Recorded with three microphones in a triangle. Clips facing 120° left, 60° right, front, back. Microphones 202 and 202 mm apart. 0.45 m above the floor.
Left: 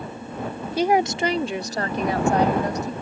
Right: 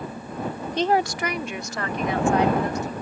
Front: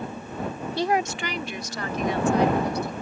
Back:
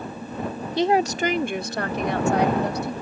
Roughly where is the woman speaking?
Behind.